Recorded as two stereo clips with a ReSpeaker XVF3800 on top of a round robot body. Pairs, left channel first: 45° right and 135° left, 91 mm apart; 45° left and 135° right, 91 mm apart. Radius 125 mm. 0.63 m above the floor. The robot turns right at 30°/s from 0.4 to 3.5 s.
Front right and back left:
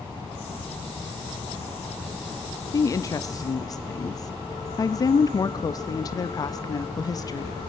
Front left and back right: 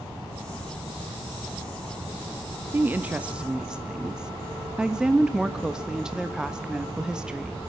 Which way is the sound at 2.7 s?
80° right.